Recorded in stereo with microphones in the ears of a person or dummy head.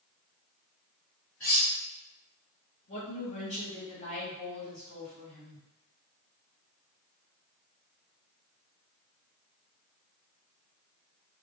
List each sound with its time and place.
1.4 s cutlery clinking: 10° left (ahead or behind), 0.6 m
2.9 s a woman speaking: 35° left (ahead or behind), 1.1 m